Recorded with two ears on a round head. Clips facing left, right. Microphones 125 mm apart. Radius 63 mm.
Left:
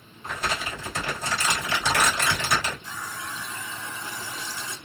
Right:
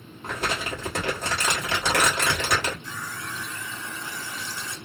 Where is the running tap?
15° left (ahead or behind), 0.9 m.